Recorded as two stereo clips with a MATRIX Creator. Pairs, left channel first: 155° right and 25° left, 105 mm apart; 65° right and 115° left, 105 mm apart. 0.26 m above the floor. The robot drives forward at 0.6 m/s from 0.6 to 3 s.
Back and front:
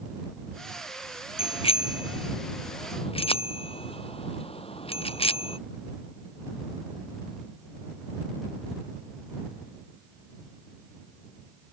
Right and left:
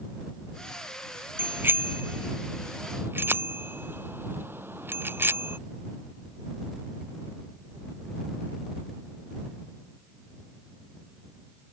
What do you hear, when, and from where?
1.4 s a bicycle bell: straight behind